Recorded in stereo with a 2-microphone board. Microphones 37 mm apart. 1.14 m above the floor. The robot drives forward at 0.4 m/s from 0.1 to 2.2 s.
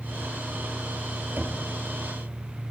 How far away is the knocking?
About 2 m.